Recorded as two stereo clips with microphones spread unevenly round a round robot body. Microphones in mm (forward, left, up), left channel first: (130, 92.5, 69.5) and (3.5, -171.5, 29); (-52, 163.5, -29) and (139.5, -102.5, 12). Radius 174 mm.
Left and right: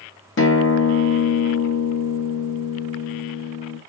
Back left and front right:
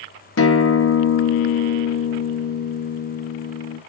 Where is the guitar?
110° left, 1.3 m.